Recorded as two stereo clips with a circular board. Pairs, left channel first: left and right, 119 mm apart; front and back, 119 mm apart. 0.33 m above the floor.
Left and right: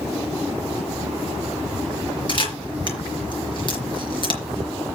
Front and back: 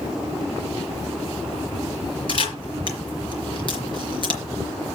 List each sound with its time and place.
2.3 s a camera shutter: 45° left, 4 m